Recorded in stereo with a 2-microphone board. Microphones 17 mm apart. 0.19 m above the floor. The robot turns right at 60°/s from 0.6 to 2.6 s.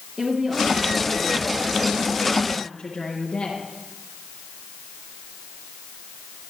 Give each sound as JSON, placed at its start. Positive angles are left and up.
{"t": 0.2, "sound": "a woman speaking", "azimuth_deg": -50, "distance_m": 3.5}